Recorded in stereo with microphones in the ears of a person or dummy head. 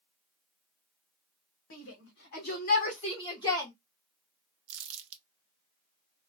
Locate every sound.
1.7 s a shout: 80° left, 1.3 m; by 3.7 s 15° left (ahead or behind), 1.2 m
4.7 s crumpling: 70° right (ahead or behind), 0.5 m